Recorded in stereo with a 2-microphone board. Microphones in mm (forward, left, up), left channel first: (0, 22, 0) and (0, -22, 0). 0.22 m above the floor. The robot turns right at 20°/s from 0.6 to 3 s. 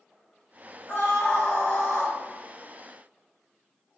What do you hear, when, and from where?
0.9 s a scream: 45° left (ahead or behind), 1.2 m